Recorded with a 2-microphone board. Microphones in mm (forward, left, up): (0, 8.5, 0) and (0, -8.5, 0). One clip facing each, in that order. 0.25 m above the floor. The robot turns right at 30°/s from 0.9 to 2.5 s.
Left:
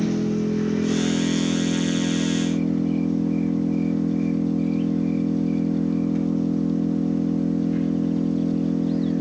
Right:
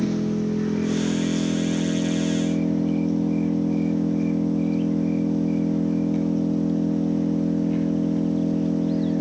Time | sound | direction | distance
0.0 | an engine running | 165° left | 3 m